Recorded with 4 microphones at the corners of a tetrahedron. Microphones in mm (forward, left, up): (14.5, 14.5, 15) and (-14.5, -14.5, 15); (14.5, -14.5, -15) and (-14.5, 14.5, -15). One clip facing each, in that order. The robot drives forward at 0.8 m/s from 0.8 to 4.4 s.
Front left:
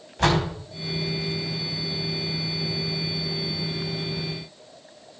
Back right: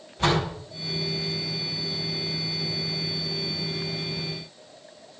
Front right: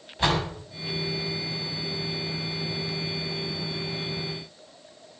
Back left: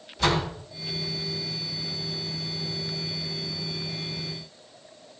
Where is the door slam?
20° left, 5 m.